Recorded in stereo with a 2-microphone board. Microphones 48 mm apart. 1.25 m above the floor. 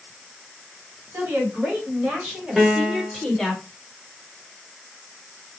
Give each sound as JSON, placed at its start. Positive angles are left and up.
{"t": 1.1, "sound": "a woman speaking", "side_deg": -55, "distance_m": 1.5}
{"t": 2.6, "sound": "a piano", "side_deg": -10, "distance_m": 0.7}